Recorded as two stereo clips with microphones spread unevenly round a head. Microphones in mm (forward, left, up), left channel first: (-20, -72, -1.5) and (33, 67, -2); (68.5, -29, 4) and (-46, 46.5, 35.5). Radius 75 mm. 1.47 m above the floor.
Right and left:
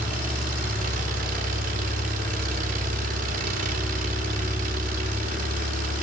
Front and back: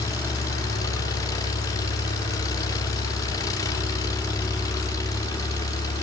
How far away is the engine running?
About 3 m.